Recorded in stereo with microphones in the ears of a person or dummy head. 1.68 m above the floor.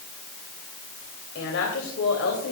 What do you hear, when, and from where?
1.4 s a woman speaking: 75° left (ahead or behind), 3 m